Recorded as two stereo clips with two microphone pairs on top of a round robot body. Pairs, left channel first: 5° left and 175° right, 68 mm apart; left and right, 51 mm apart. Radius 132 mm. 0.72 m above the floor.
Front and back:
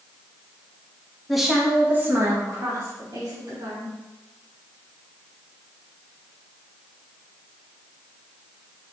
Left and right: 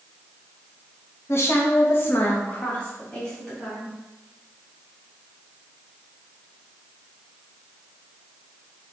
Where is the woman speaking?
85° left, 1.3 m; by 3.9 s 175° left, 2.5 m.